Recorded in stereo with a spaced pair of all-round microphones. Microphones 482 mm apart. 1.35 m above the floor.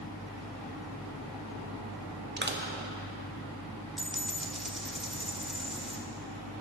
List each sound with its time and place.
2.4 s crushing: 25° right (ahead or behind), 1.0 m
4.0 s a dropped coin: centre (ahead or behind), 1.1 m